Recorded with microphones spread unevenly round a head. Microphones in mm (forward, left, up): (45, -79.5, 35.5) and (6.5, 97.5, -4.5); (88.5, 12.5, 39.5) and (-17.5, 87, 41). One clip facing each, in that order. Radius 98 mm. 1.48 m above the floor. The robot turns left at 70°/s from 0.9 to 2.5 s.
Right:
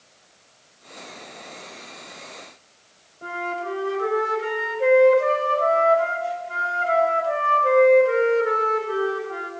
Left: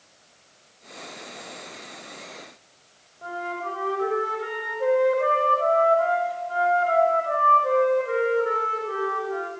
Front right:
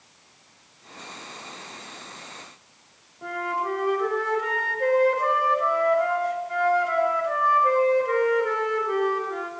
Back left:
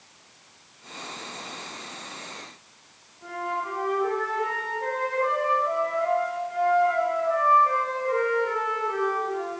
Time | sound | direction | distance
3.2 | a flute | 15° right | 5.5 m